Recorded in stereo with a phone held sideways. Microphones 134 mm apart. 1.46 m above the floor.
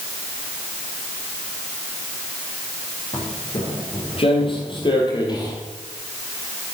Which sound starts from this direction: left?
Footsteps, at 3.1 s.